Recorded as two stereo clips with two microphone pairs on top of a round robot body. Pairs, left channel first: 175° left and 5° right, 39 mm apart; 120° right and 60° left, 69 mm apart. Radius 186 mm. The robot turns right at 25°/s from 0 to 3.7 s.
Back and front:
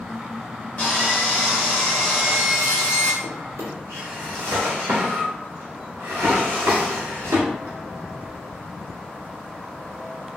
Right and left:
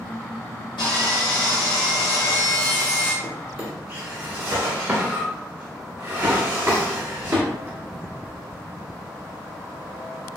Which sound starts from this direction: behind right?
Sawing, at 0.8 s.